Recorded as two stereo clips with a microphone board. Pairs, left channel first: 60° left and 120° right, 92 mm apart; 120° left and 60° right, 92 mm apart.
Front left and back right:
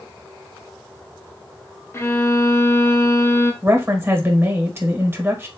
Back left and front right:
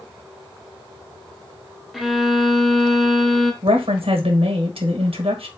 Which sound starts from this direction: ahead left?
A violin, at 1.9 s.